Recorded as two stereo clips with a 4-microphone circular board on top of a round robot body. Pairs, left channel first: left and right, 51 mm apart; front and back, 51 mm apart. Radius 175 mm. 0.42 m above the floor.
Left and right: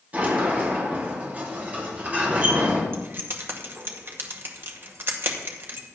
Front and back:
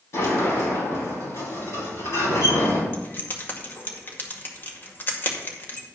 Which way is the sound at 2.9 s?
50° right.